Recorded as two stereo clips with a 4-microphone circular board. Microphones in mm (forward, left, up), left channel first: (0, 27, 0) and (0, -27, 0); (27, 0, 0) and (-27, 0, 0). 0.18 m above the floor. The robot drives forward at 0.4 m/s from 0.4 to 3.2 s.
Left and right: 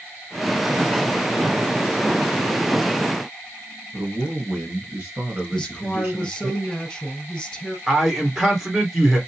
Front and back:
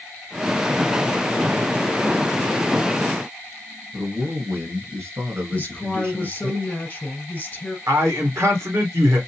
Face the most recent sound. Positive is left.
turn(degrees=-175)